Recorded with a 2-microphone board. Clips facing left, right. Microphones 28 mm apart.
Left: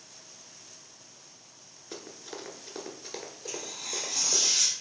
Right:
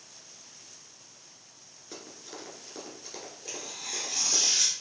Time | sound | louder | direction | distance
1.9 | running footsteps | left 2 dB | 10° left (ahead or behind) | 0.9 m
3.5 | tearing paper | left 1 dB | 20° right (ahead or behind) | 2.5 m